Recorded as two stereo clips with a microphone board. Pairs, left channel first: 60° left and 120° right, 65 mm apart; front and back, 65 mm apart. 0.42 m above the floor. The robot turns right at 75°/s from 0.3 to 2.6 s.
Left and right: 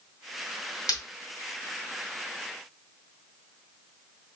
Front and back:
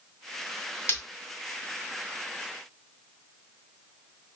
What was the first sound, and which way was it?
Breaking glass, 45° left.